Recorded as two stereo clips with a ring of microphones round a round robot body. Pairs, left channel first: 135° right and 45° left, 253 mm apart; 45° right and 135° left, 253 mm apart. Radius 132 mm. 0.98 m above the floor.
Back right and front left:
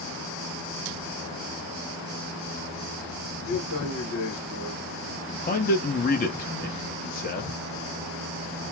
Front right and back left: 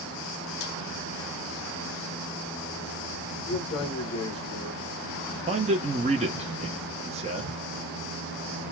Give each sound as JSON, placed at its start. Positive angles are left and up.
{"t": 3.5, "sound": "a man speaking", "azimuth_deg": -110, "distance_m": 2.5}
{"t": 5.5, "sound": "a man speaking", "azimuth_deg": -175, "distance_m": 0.9}